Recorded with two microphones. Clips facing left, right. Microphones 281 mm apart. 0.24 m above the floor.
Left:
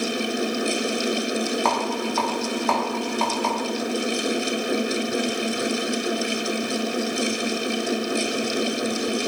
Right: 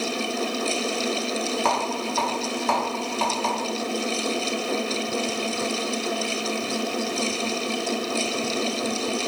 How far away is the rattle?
About 0.9 m.